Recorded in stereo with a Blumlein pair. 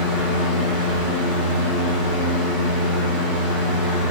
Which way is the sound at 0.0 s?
30° right.